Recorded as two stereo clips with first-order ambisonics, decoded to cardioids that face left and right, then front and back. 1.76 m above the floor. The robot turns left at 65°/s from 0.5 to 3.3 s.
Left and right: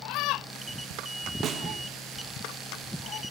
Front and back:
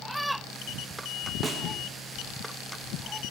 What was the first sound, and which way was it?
A snare drum, 115° right.